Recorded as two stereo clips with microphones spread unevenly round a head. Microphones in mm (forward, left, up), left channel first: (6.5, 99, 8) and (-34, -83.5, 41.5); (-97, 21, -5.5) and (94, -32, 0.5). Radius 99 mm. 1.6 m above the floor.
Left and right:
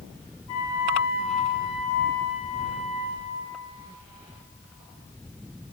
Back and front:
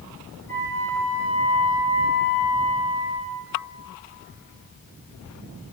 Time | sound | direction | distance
0.5 | a flute | 85° left | 2.5 m